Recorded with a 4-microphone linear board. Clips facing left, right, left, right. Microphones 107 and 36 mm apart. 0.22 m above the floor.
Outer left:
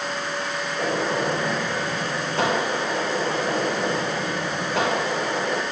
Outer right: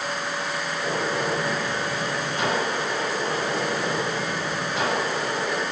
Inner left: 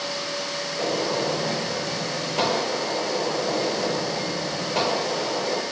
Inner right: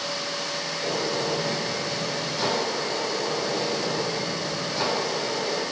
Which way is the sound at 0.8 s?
70° left (ahead or behind).